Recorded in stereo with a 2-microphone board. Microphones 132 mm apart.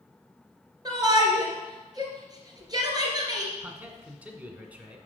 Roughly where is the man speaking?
Centre.